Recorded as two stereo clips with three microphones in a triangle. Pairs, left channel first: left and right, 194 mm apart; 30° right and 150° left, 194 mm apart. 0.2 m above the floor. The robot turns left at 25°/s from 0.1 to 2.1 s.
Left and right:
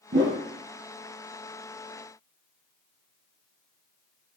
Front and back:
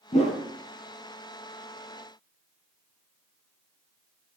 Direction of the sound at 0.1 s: 80° right.